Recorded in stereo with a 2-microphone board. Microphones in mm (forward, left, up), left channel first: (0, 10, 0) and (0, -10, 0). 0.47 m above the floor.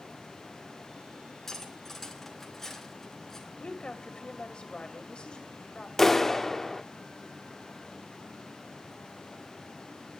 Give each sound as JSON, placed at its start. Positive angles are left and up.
{"t": 1.5, "sound": "cutlery clinking", "side_deg": 15, "distance_m": 3.0}
{"t": 3.6, "sound": "a woman speaking", "side_deg": 65, "distance_m": 2.0}
{"t": 6.0, "sound": "a clap", "side_deg": 20, "distance_m": 0.8}